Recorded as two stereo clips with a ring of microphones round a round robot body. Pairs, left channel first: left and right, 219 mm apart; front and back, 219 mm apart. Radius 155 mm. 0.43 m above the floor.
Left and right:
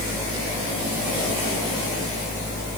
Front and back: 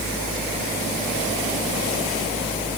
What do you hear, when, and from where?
Only background noise.